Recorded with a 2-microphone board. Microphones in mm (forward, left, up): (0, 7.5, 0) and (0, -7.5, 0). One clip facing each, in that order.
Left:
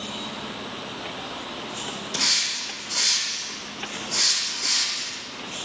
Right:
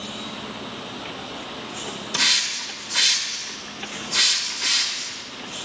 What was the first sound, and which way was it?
A hiss, 75° right (ahead or behind).